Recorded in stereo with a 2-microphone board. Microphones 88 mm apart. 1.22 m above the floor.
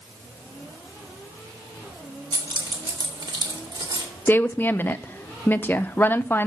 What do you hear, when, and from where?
2.3 s keys jangling: 60° right (ahead or behind), 2.5 m
4.3 s a woman speaking: 25° left (ahead or behind), 0.6 m